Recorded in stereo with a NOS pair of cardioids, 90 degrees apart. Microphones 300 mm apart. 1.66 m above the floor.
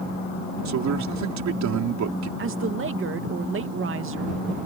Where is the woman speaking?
45° right.